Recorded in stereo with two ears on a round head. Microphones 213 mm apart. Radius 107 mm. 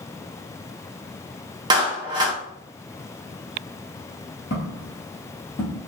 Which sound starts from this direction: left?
Footsteps, at 4.5 s.